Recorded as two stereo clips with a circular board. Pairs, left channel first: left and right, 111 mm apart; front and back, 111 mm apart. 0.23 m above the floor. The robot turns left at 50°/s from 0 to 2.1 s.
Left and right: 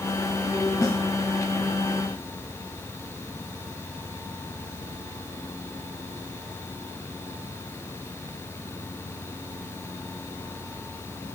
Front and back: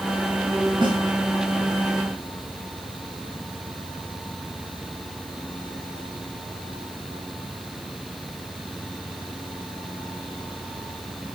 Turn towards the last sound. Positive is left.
turn(degrees=85)